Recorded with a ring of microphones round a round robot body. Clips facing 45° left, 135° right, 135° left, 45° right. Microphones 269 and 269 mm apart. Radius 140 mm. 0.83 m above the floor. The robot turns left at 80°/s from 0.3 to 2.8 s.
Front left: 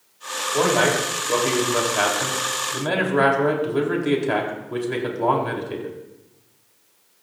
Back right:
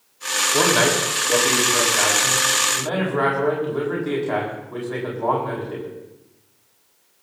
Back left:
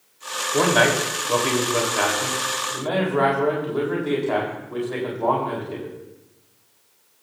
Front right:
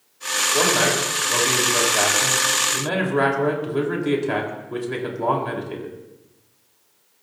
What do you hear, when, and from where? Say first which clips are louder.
0.5 s a man speaking: even, back left 2 dB; 175° right, 4 m; by 5.9 s 5° left, 4 m